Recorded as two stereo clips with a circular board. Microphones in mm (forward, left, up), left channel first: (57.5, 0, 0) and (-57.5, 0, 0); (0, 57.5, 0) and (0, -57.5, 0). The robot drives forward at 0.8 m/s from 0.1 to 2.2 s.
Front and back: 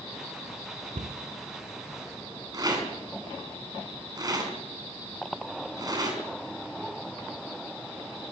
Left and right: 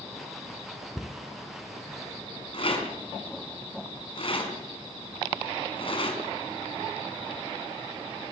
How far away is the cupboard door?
About 1.6 m.